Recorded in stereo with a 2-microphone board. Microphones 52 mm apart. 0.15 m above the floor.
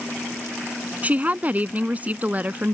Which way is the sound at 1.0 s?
30° right (ahead or behind).